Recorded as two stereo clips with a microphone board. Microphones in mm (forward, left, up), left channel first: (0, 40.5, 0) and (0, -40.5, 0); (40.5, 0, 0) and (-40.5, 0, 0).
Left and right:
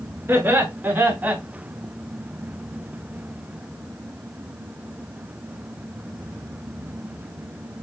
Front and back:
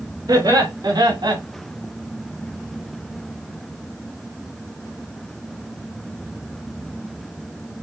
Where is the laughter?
150° right, 3 m; by 1.4 s 160° right, 1.8 m.